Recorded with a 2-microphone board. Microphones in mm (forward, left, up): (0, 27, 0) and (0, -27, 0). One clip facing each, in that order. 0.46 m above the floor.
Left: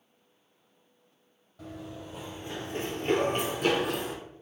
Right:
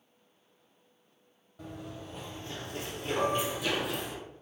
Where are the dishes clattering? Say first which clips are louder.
Left 1 dB; 25° right (ahead or behind), 1.9 m.